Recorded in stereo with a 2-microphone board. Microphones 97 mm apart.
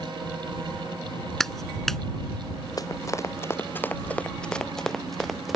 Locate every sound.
1.4 s a clap: 5° left (ahead or behind)
2.8 s running footsteps: 40° left (ahead or behind); by 5.6 s centre (ahead or behind)